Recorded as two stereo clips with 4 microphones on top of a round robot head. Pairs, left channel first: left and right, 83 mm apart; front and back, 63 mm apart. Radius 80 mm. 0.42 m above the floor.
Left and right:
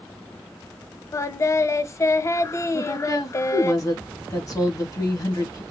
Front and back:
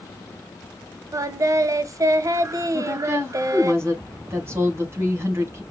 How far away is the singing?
About 0.7 m.